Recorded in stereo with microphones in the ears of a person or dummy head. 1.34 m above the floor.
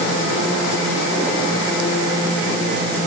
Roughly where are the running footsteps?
No running footsteps in this recording.